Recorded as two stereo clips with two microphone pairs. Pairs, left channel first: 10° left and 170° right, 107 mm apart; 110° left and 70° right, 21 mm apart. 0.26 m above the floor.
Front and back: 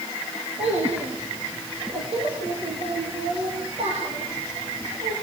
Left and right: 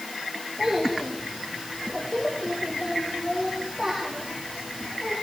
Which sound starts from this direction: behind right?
A child speaking, at 0.6 s.